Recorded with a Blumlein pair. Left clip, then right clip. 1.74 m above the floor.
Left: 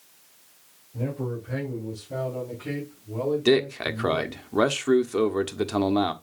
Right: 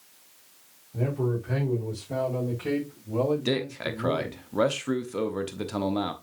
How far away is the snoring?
I don't hear snoring.